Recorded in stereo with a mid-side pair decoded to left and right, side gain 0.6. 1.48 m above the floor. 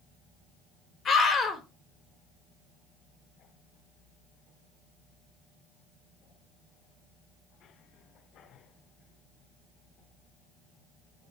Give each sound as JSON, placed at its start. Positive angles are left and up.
{"t": 1.1, "sound": "a scream", "azimuth_deg": 40, "distance_m": 5.5}